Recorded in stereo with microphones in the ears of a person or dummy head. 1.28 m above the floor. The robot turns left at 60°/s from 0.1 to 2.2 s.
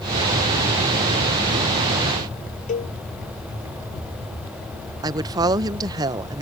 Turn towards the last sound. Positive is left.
turn(degrees=-25)  # may be behind; listen again after turning